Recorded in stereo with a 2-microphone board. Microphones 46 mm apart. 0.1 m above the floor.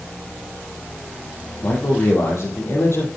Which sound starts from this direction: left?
A man speaking, at 1.6 s.